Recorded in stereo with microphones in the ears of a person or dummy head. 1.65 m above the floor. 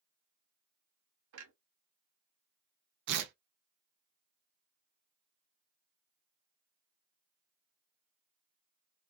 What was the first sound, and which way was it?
A clunk, 85° right.